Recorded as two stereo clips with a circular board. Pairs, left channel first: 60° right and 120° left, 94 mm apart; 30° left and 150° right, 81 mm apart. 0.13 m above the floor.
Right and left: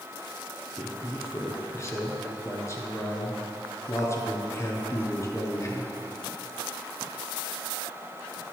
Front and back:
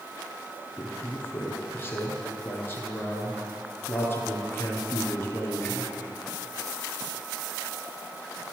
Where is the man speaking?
15° right, 1.8 m.